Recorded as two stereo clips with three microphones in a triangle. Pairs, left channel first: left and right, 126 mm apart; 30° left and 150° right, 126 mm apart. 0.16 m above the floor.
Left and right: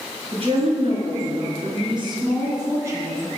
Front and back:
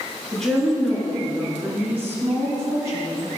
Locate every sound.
0.3 s a woman speaking: 60° right, 2.5 m; by 3.3 s 150° right, 1.4 m